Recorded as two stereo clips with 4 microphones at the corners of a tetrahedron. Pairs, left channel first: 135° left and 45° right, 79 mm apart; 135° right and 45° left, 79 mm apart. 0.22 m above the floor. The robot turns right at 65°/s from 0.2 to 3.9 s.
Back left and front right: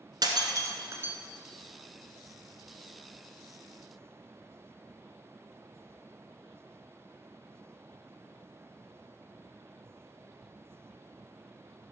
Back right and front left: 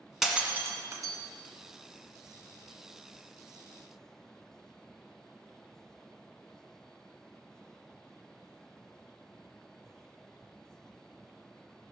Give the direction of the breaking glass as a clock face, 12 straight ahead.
1 o'clock.